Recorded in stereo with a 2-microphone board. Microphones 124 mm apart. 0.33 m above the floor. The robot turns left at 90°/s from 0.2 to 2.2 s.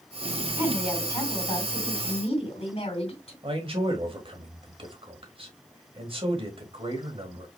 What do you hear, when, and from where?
0.6 s a woman speaking: 145° right, 2.5 m; by 3.3 s 65° left, 2.5 m
3.4 s a man speaking: 45° right (ahead or behind), 1.6 m